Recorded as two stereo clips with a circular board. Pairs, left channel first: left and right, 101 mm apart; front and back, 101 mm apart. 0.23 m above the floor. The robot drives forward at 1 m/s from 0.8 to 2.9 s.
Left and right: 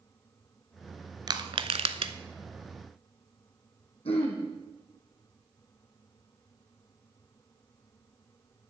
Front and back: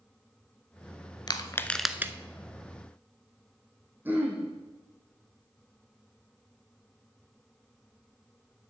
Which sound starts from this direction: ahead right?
Crushing, at 1.3 s.